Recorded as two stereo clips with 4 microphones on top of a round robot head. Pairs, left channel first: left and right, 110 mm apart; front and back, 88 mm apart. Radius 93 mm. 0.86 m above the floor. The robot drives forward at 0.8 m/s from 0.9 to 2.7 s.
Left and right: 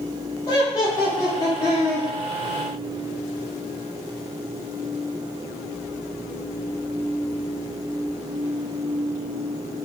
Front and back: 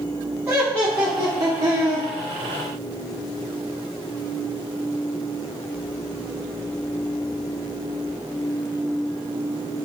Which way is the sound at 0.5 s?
110° left.